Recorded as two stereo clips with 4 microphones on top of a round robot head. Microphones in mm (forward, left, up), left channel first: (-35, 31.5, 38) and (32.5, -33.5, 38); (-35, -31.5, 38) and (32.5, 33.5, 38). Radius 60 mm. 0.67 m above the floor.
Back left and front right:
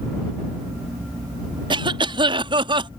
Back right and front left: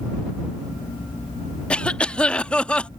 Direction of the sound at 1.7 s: 60° right.